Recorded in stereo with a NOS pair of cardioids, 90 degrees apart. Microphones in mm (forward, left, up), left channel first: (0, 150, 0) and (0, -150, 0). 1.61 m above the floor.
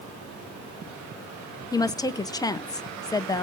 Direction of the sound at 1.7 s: 10° left.